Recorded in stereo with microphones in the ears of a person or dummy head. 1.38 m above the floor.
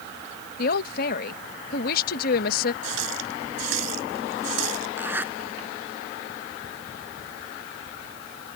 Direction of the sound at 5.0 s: 10° right (ahead or behind).